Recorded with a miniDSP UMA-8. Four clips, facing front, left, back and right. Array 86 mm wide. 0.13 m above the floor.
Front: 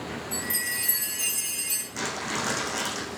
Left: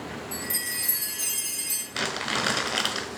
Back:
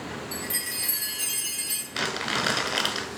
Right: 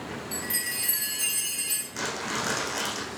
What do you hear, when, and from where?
0.3 s a chime: 120° right, 1.8 m
1.9 s crumpling: 135° left, 0.7 m